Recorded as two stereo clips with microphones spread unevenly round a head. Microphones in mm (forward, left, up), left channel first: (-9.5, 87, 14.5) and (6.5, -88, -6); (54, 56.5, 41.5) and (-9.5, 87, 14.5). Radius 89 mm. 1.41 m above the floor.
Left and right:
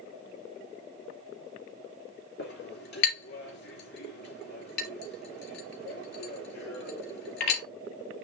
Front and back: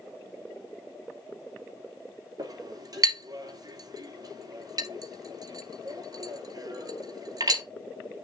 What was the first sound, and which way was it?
A clink, 125° left.